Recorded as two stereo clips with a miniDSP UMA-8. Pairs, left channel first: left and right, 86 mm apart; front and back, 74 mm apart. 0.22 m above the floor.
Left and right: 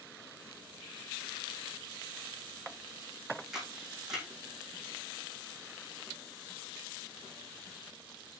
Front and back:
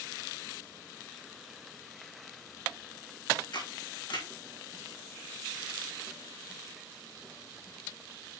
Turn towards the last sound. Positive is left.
turn(degrees=-5)